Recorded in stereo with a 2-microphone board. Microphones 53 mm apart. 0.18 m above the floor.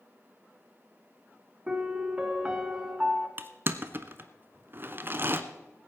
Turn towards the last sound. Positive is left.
turn(degrees=-40)  # may be behind; listen again after turning